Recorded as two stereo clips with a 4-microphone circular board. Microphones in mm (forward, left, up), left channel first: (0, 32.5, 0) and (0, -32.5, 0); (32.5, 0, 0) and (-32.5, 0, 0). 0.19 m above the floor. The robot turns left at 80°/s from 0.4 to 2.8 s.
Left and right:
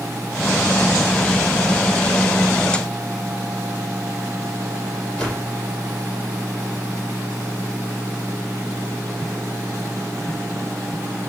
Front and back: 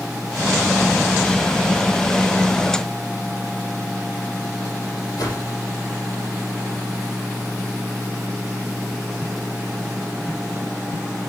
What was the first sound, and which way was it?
A whoosh, 15° left.